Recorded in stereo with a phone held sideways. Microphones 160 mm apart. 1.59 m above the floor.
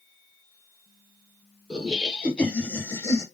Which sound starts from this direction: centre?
Laughter, at 1.7 s.